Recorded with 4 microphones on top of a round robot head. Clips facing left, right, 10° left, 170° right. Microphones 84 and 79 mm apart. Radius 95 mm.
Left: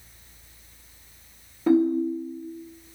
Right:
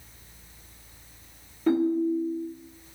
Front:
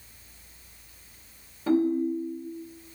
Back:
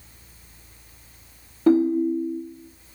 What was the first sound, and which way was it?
A ringtone, 175° left.